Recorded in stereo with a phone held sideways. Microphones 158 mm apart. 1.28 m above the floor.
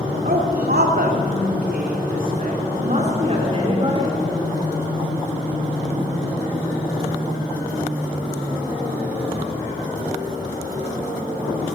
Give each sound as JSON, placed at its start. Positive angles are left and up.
{"t": 0.2, "sound": "a woman speaking", "side_deg": -70, "distance_m": 3.5}